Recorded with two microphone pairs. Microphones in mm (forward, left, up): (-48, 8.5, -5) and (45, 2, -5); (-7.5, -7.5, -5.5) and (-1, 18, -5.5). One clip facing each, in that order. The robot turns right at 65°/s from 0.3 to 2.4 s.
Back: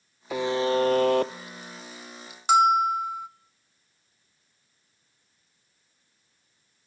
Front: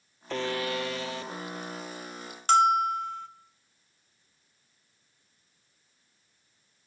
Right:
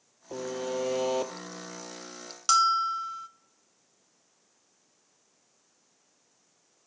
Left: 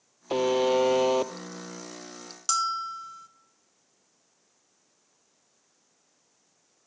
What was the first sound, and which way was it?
A buzzer, 95° left.